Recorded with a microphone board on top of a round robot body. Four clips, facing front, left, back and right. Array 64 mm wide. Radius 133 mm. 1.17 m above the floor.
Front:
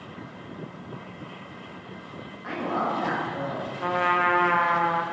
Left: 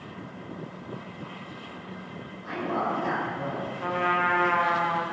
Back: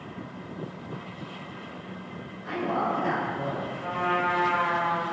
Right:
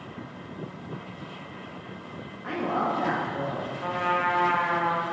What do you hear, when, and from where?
2.4 s a woman speaking: 50° right, 2.5 m
3.8 s a trumpet: 15° left, 0.9 m